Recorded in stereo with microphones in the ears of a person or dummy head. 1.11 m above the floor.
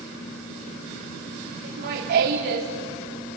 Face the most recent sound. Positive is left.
turn(degrees=-55)  # may be behind; listen again after turning